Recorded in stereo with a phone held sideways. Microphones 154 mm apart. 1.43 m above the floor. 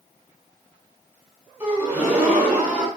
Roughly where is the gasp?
Centre.